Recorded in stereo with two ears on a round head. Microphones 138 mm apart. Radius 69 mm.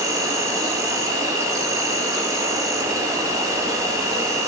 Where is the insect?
20° right (ahead or behind), 1.2 m.